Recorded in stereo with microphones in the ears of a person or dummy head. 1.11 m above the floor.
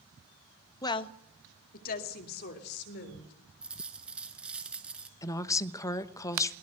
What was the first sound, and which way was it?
A woman speaking, 20° left (ahead or behind).